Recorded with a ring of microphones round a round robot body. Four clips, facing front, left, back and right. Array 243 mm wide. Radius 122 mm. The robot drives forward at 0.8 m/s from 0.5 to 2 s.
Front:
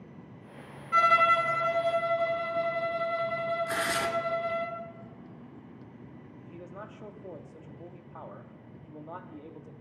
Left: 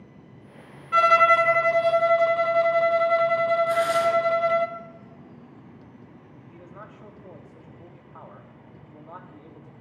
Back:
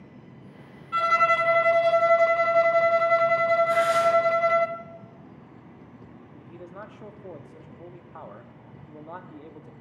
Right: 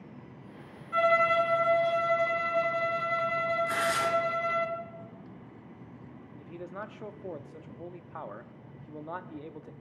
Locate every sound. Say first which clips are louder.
0.9 s a violin: left 7 dB, back 1 dB; 80° left, 0.6 m; by 4.7 s 140° left, 1.0 m
3.7 s tearing paper: left 7 dB, back 9 dB; 20° right, 2.5 m
6.4 s a man speaking: right 5 dB, back 3 dB; 105° right, 0.7 m